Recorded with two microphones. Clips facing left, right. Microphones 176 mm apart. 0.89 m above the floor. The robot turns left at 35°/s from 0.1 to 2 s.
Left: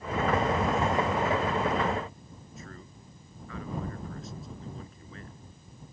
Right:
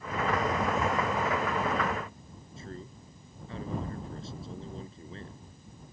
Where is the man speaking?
30° right (ahead or behind).